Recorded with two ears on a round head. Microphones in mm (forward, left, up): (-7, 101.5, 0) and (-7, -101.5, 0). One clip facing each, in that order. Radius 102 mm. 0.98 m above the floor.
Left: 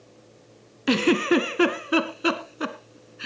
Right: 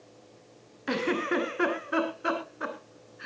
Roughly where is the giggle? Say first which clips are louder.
Left 8 dB; left.